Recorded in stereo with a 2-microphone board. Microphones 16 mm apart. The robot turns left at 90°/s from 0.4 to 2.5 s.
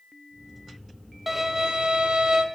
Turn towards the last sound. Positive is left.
turn(degrees=-125)